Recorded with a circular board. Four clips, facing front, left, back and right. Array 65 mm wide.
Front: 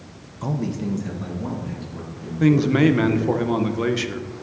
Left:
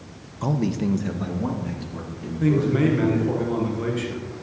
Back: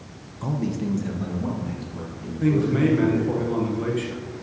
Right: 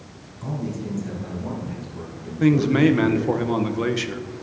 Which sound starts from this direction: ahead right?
A man speaking, at 2.4 s.